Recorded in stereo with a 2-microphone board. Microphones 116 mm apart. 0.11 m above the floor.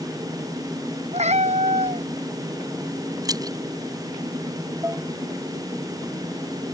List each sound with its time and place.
1.1 s a cat meowing: 75° right (ahead or behind)
3.2 s keys jangling: 35° right (ahead or behind)
4.8 s dishes clattering: 20° right (ahead or behind)